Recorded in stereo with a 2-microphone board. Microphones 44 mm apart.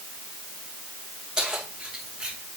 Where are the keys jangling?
20° right (ahead or behind), 5 m; by 2.4 s 25° right (ahead or behind), 3.5 m.